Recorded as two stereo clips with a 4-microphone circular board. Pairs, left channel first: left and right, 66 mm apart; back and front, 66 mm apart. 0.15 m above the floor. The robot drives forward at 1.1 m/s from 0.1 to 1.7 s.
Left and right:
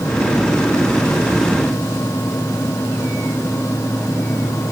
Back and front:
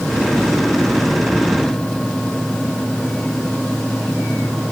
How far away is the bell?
No bell in this recording.